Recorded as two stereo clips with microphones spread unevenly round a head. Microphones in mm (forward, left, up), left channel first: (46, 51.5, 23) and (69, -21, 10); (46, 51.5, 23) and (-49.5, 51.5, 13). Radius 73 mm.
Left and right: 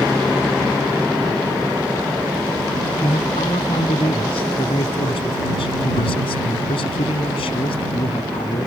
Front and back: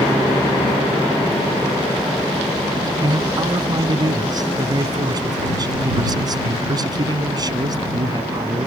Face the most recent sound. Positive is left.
turn(degrees=130)